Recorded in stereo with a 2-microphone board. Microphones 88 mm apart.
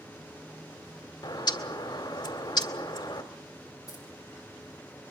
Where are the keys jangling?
45° left (ahead or behind), 6 m.